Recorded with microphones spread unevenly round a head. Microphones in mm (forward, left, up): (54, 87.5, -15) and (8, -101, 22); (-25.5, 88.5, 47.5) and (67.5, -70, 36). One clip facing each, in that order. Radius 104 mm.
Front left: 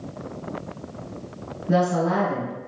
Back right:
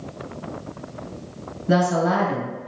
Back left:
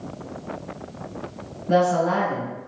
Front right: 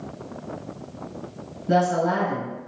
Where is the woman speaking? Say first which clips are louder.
Back right 1 dB, back left 2 dB; 120° right, 1.5 m.